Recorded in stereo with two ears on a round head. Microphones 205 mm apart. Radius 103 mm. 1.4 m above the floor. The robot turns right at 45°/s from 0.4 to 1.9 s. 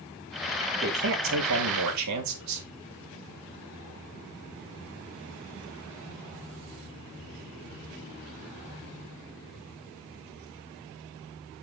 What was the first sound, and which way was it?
A man speaking, 135° right.